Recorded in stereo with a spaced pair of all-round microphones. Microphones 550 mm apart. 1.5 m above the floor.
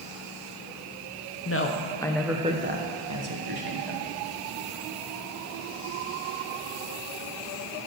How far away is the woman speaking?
About 1.0 m.